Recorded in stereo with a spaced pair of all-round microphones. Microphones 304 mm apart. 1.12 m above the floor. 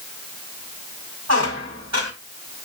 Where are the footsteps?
No footsteps in this recording.